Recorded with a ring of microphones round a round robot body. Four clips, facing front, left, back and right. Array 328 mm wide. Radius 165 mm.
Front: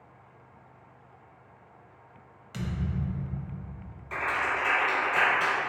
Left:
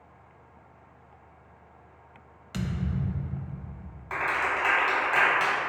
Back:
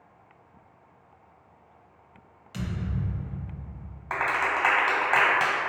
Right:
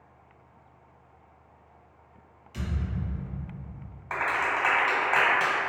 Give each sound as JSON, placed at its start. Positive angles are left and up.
{"t": 2.5, "sound": "a thud", "azimuth_deg": 90, "distance_m": 0.7}
{"t": 4.1, "sound": "a clap", "azimuth_deg": -170, "distance_m": 1.6}